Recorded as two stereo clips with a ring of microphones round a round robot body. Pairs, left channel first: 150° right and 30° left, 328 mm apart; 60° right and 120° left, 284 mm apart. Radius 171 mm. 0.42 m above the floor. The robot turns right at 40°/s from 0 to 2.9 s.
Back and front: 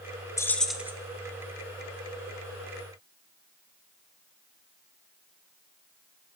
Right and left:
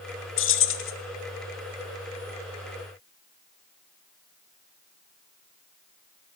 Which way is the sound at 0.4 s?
75° right.